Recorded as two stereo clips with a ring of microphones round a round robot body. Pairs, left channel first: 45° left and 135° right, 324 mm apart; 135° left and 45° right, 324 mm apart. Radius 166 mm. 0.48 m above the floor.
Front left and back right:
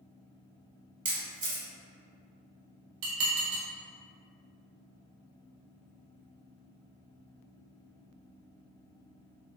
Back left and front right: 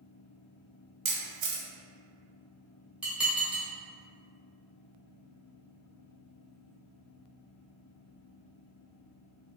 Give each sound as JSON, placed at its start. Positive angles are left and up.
{"t": 1.1, "sound": "a camera shutter", "azimuth_deg": -70, "distance_m": 1.1}
{"t": 3.0, "sound": "dishes clattering", "azimuth_deg": -130, "distance_m": 1.1}